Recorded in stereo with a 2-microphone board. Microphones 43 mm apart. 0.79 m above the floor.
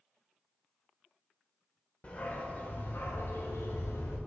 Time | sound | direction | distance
2.0 | a dog barking | 35° left (ahead or behind) | 1.2 m